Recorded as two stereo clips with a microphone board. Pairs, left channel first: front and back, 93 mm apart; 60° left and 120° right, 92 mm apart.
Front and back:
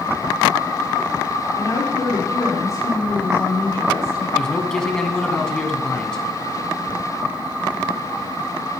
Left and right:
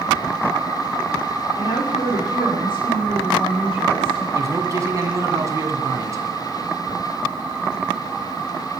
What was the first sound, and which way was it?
A woman speaking, 45° left.